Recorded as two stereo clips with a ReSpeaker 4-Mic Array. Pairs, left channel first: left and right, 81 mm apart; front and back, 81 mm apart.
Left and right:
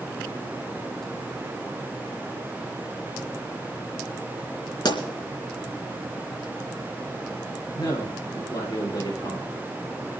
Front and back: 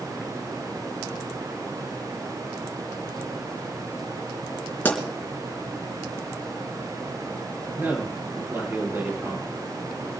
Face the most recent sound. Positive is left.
turn(degrees=115)